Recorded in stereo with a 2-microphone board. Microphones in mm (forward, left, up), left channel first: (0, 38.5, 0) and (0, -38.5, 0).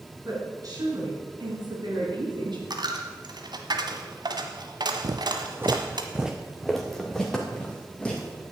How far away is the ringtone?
No ringtone in this recording.